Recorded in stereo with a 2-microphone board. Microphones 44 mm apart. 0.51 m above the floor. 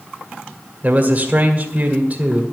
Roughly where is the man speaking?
Right.